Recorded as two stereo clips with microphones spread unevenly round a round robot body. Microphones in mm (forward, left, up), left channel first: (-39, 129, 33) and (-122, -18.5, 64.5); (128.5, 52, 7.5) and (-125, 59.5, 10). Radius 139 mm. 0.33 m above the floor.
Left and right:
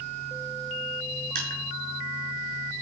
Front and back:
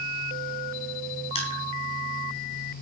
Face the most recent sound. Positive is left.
turn(degrees=-70)